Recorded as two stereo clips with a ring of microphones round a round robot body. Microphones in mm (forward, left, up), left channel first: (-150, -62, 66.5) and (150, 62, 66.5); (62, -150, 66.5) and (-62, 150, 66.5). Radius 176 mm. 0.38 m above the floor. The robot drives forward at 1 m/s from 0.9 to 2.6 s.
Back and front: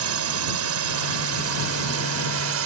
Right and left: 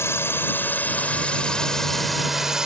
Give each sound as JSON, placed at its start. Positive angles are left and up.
{"t": 0.0, "sound": "a drone", "azimuth_deg": 15}